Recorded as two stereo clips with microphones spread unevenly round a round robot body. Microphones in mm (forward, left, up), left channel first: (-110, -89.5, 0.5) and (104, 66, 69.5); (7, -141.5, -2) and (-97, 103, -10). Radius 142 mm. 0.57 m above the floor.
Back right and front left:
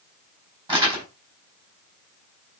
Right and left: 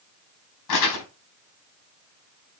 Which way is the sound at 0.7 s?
40° right.